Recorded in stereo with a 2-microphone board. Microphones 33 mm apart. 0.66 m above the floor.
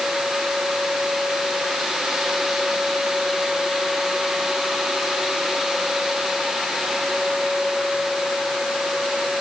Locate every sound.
Only background noise.